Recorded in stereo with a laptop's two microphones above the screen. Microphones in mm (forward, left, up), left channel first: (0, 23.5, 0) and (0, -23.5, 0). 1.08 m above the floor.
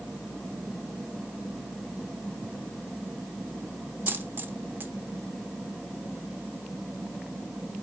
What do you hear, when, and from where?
2.4 s ticking: 15° right (ahead or behind), 0.6 m
4.1 s a dropped coin: 50° right (ahead or behind), 0.9 m